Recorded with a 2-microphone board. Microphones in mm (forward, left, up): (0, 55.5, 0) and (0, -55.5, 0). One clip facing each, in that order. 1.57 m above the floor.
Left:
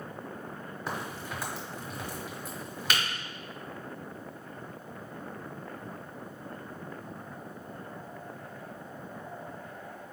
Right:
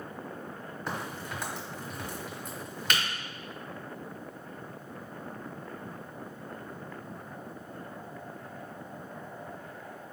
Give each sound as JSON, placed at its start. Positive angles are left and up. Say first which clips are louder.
{"t": 0.9, "sound": "a crack", "louder": "even", "side_deg": 5, "distance_m": 1.2}